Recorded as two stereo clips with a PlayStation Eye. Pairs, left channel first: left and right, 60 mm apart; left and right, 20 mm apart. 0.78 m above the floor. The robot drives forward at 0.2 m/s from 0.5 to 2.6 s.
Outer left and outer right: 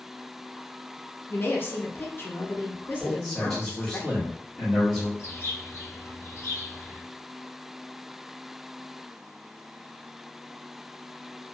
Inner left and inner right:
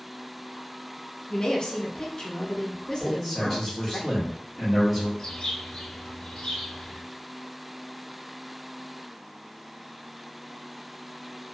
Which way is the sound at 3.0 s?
5° left (ahead or behind).